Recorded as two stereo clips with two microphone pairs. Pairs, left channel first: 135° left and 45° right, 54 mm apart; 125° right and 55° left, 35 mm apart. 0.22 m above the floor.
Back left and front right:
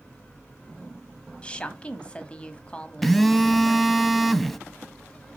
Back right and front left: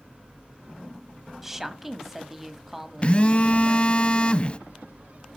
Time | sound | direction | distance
1.4 | a woman speaking | 120° left | 1.1 m
3.0 | a phone buzzing | 145° right | 0.6 m